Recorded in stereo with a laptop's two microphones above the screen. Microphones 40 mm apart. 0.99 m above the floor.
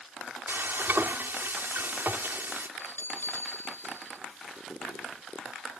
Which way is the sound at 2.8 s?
75° left (ahead or behind).